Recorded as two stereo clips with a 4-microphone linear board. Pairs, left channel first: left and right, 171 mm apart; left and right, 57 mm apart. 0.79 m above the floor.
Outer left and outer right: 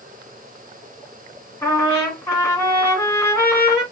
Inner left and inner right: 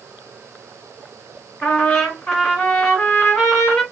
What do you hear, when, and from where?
1.6 s a trumpet: 15° left (ahead or behind), 1.7 m